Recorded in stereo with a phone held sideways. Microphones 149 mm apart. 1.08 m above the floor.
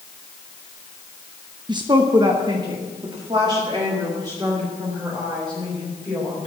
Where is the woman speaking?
30° right (ahead or behind), 0.7 m.